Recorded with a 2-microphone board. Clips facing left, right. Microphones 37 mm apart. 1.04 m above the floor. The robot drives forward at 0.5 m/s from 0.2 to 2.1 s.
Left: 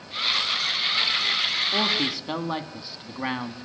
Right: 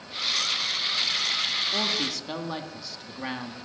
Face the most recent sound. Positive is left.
turn(degrees=20)  # may be behind; listen again after turning